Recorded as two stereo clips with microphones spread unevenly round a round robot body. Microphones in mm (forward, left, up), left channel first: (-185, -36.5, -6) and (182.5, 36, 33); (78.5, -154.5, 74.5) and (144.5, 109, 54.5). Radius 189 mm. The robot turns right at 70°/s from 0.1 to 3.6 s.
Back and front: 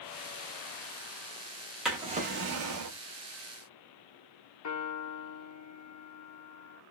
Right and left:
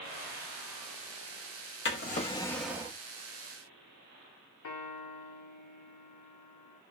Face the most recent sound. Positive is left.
turn(degrees=-130)